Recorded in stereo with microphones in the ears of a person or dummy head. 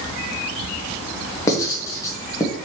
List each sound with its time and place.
1.5 s writing: 20° left (ahead or behind), 1.1 m